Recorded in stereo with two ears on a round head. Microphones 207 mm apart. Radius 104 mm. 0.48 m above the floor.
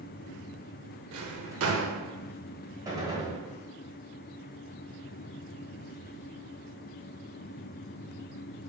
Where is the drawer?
65° right (ahead or behind), 0.7 m.